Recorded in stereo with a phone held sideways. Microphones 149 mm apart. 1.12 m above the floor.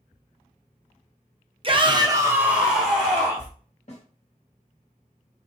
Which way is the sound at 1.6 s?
35° right (ahead or behind).